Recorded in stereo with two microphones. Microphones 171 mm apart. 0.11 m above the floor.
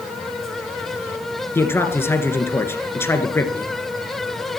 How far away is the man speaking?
About 1.8 m.